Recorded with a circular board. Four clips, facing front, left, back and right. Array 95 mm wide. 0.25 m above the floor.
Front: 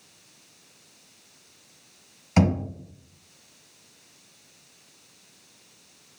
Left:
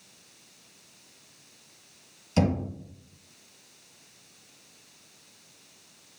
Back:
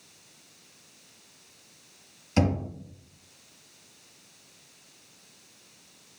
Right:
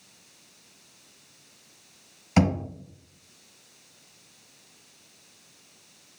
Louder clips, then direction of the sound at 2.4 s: Right 2 dB, front 3 dB; 50° right.